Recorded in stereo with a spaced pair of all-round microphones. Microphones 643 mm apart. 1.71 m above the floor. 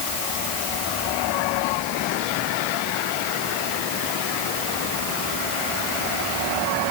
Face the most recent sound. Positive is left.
No sound to turn to.